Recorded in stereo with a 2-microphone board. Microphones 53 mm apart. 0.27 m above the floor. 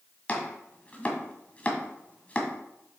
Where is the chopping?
25° left (ahead or behind), 1.6 m.